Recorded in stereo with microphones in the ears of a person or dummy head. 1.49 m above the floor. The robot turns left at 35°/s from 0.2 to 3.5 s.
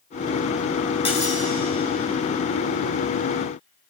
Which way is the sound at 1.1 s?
30° left (ahead or behind).